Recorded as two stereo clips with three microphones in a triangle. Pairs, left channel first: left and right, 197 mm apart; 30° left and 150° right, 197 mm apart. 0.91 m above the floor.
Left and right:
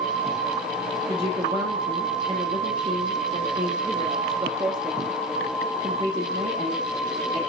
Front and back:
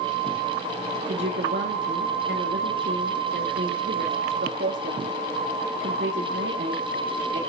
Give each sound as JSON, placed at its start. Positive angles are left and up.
{"t": 1.1, "sound": "a woman speaking", "azimuth_deg": -155, "distance_m": 1.6}